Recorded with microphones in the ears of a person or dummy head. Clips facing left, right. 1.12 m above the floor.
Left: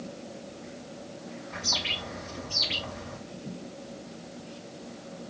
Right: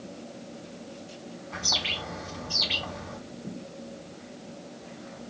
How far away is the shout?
No shout in this recording.